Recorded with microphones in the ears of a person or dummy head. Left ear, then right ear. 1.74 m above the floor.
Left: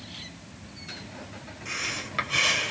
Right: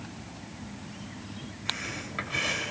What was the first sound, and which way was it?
Breathing, 25° left (ahead or behind).